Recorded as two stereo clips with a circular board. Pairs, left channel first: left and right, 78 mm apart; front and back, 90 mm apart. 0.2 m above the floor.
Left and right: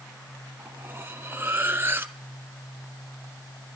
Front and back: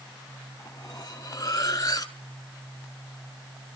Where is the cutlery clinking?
35° right, 1.3 m.